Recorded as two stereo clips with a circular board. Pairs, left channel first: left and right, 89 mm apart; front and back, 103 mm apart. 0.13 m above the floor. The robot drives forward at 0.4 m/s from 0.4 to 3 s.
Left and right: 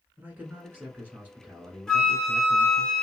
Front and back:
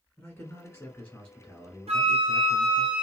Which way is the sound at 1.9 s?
175° left.